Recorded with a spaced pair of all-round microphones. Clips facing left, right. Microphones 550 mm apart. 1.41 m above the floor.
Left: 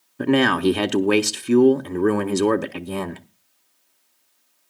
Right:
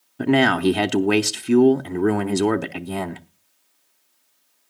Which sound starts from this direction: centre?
A man speaking, at 0.2 s.